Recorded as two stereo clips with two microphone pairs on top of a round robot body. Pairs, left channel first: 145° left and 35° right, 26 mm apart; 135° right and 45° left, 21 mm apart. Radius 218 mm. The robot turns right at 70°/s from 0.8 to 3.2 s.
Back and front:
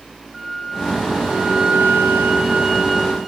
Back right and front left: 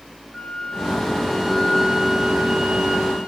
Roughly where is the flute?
Right.